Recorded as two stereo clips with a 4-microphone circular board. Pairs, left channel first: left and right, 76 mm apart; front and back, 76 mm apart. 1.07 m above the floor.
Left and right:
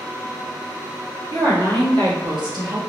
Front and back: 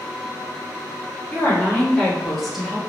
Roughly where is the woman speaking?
Ahead right.